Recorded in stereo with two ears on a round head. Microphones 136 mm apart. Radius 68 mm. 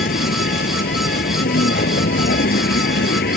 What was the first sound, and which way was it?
A vehicle, 55° left (ahead or behind).